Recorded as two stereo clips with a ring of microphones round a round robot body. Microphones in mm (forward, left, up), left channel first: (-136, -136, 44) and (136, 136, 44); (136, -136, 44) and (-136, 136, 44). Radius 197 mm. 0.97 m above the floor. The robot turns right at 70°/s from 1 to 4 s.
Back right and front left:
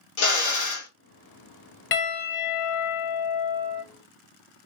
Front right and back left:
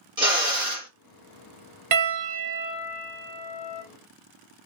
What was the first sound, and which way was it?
A drill, 145° right.